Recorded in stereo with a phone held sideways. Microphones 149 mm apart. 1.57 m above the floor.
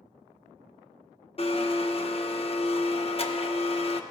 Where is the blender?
40° left (ahead or behind), 0.8 m.